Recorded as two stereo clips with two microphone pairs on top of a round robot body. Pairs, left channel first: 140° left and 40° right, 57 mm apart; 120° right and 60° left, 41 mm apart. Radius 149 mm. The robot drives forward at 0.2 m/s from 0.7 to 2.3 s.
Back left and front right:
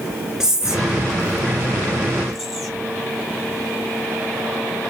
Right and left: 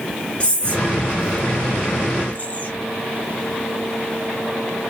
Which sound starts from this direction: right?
Whispering, at 0.4 s.